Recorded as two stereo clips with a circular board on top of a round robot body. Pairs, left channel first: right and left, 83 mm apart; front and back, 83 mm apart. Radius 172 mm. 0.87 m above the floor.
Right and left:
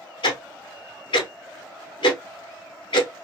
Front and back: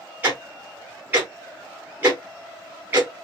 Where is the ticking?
110° right, 0.5 m.